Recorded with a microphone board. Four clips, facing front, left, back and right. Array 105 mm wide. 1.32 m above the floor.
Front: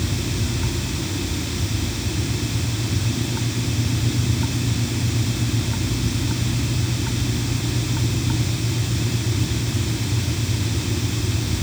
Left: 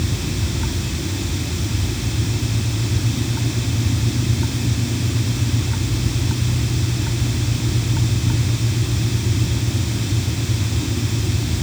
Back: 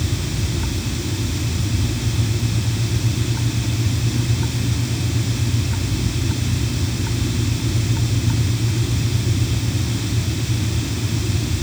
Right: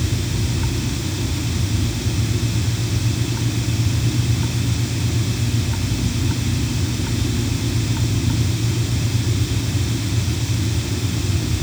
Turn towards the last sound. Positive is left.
No sound to turn to.